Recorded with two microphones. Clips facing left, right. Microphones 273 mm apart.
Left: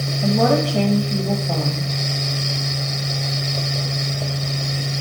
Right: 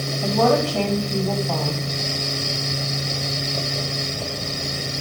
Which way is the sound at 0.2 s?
15° left (ahead or behind).